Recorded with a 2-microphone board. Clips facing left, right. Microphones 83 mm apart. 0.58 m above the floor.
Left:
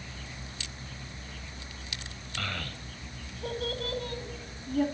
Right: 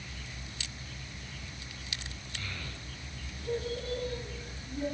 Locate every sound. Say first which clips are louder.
2.4 s a child speaking: left 7 dB; 75° left (ahead or behind), 2.5 m; by 4.8 s 80° left, 4 m